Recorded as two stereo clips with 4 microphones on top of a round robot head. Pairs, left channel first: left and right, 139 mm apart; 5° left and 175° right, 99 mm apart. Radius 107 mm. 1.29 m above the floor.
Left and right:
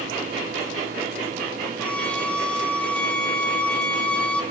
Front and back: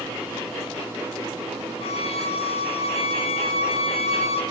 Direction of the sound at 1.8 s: 10° left.